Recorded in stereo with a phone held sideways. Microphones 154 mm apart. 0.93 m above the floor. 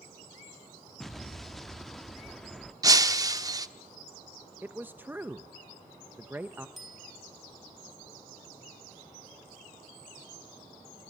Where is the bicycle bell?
Centre (ahead or behind), 4.5 m.